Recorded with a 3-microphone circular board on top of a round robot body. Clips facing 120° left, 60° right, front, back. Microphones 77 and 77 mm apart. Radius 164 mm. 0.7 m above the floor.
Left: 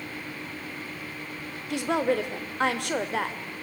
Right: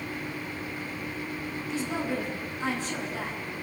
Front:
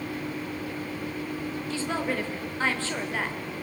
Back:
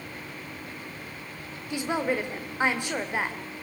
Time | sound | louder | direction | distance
1.7 | a woman speaking | left 7 dB, back 3 dB | 105° left | 3 m